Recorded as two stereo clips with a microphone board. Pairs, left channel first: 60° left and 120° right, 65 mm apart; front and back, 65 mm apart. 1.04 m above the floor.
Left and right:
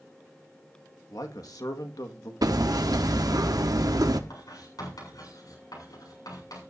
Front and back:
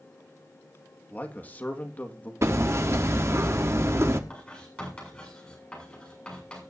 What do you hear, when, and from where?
1.1 s a man speaking: 60° left, 1.8 m
2.4 s hammering: 135° right, 1.3 m
4.3 s writing: 75° left, 7.5 m